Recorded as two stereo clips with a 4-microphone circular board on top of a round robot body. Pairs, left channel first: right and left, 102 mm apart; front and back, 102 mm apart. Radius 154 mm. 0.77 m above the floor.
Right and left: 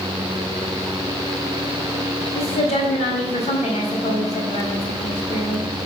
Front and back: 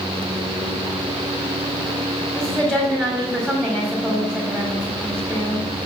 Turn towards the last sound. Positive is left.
turn(degrees=-80)